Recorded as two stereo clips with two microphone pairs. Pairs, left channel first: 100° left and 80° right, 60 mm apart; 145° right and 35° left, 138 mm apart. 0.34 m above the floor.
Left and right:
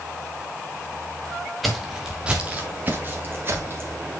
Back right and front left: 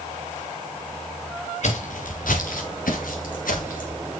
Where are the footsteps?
175° right, 1.9 m; by 4.0 s 130° right, 3.5 m.